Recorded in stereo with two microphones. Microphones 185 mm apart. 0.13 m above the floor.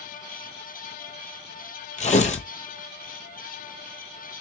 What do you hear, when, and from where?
2.0 s tearing paper: 40° left (ahead or behind), 0.6 m